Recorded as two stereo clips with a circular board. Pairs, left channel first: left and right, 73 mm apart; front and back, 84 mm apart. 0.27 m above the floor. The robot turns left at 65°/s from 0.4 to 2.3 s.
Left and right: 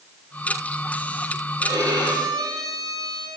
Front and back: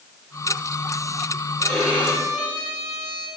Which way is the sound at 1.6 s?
75° right.